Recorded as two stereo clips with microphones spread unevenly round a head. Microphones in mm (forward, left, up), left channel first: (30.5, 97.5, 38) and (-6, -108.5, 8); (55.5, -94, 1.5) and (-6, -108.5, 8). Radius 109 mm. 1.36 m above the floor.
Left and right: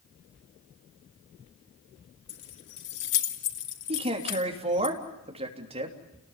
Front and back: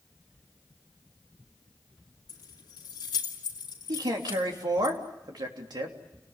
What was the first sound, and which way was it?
Keys jangling, 45° left.